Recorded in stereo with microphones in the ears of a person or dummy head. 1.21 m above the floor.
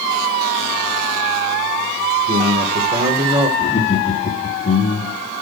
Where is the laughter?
40° left (ahead or behind), 2.5 m.